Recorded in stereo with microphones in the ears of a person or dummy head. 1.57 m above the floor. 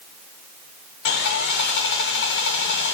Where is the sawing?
60° left (ahead or behind), 2 m.